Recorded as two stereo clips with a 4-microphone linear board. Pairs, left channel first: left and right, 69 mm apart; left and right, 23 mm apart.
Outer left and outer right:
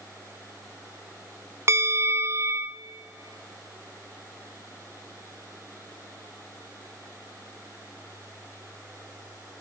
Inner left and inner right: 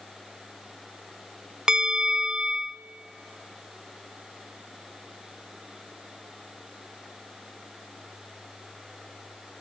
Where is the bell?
40° right (ahead or behind), 0.5 m.